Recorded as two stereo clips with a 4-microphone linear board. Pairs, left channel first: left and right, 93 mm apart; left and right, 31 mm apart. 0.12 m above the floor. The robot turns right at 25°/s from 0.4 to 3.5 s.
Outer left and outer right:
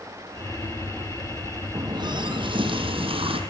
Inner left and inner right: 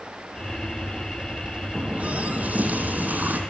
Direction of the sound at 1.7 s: 130° right.